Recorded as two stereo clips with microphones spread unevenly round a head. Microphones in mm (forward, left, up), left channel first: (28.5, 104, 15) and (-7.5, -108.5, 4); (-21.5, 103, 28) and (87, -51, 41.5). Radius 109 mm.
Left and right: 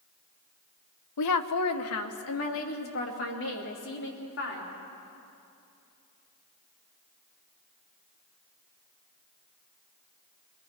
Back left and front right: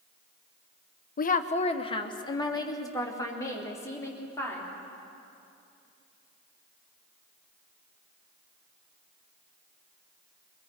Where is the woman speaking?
80° left, 0.9 m; by 4.7 s 45° left, 4.5 m.